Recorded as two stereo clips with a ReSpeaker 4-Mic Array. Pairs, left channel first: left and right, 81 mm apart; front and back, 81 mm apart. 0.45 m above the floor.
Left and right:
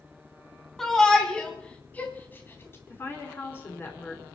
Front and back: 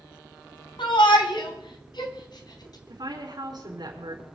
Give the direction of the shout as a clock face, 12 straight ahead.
12 o'clock.